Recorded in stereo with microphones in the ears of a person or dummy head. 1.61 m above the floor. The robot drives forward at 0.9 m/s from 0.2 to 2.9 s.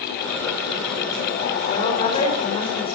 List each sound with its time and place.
1.7 s a woman speaking: 30° left (ahead or behind), 7 m; by 3.0 s 25° left (ahead or behind), 8 m